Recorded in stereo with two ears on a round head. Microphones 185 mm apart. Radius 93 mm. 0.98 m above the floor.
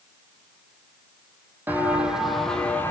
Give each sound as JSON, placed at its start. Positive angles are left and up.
{"t": 1.7, "sound": "footsteps", "side_deg": -10, "distance_m": 2.5}